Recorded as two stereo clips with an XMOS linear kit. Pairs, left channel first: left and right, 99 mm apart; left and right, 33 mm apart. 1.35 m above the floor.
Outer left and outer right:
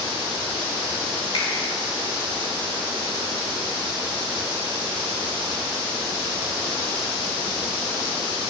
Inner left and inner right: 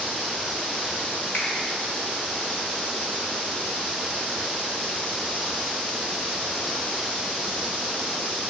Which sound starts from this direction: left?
A finger snap, at 1.3 s.